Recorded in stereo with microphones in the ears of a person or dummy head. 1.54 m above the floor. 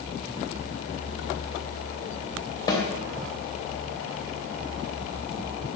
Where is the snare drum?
20° left (ahead or behind), 1.4 m.